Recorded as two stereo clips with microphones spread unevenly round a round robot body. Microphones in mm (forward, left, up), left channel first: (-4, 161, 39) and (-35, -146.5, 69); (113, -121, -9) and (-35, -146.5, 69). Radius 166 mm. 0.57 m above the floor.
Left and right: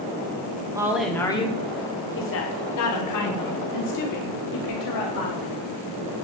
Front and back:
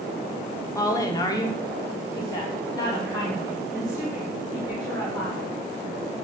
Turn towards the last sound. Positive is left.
turn(degrees=80)